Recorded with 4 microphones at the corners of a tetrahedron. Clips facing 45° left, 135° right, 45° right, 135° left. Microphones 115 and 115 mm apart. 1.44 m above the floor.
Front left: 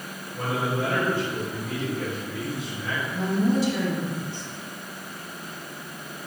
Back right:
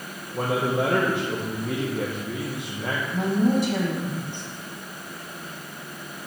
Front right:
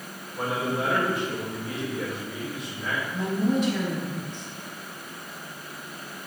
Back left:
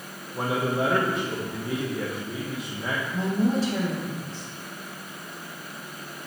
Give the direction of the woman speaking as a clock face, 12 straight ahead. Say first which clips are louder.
Back right 2 dB, even; 6 o'clock.